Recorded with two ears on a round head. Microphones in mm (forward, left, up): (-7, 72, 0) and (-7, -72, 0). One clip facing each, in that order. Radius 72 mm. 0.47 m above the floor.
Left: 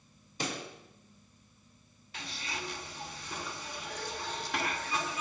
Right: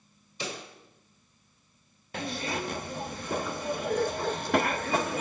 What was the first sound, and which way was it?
A pop, 40° left (ahead or behind).